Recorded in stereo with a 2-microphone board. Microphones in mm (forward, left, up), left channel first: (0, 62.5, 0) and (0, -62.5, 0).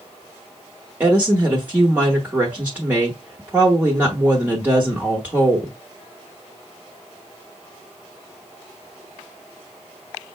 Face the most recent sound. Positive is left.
turn(degrees=-15)  # may be behind; listen again after turning